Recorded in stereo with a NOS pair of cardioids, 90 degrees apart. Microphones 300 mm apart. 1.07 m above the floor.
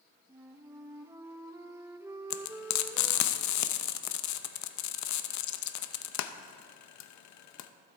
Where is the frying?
70° left, 0.6 m.